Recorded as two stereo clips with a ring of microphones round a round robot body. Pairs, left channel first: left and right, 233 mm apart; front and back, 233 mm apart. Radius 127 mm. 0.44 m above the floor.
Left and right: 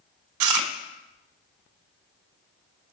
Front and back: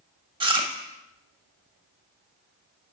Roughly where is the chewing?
Right.